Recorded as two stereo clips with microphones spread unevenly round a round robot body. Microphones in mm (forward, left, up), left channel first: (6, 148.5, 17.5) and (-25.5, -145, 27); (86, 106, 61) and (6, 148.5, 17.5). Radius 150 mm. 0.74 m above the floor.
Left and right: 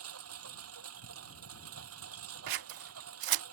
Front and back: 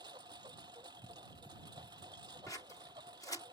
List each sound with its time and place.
0.0 s a lawn mower: 140° right
2.5 s scissors: 105° right